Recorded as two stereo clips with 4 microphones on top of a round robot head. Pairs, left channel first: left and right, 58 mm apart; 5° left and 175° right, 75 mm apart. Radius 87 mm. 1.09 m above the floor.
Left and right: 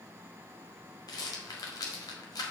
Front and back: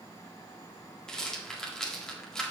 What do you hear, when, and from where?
1.1 s a rattle: 85° left, 1.8 m